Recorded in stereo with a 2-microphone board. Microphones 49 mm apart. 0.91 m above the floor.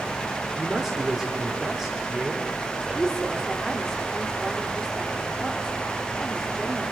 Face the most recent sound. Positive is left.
turn(degrees=15)  # may be behind; listen again after turning